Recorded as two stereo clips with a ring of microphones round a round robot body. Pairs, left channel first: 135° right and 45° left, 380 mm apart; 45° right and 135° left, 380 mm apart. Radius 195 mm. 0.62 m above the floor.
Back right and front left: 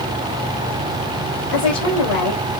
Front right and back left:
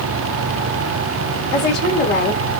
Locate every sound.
1.5 s a woman speaking: 105° right, 3 m